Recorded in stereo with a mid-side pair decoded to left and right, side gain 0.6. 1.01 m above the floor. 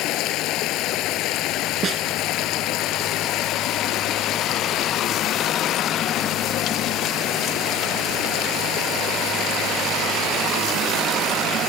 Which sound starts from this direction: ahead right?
A snare drum, at 1.8 s.